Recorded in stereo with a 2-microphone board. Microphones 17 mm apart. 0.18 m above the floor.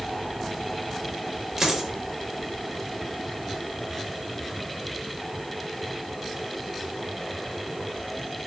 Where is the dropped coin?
35° right (ahead or behind), 0.9 m.